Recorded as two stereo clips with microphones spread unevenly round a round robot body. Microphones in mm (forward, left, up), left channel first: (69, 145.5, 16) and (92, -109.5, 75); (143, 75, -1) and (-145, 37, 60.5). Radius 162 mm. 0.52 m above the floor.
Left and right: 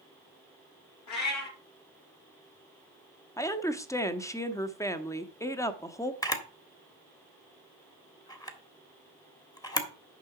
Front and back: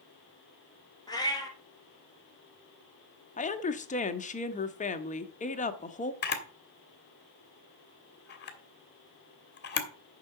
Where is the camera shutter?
35° left, 1.7 m.